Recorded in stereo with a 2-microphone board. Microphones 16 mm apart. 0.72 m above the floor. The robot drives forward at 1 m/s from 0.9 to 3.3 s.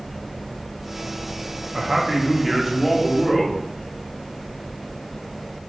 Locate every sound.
1.7 s a man speaking: 25° right (ahead or behind), 0.7 m; by 3.6 s 10° right (ahead or behind), 1.9 m